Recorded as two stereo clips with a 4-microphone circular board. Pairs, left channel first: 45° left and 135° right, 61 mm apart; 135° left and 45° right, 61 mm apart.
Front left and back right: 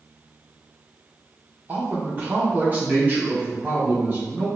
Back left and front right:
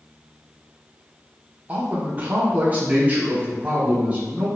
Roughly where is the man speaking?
Right.